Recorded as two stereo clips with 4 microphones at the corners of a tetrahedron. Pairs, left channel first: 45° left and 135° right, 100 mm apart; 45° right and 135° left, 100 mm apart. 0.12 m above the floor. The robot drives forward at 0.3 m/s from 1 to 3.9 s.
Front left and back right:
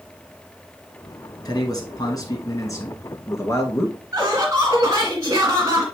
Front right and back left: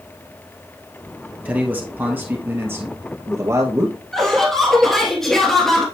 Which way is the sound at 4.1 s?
130° right.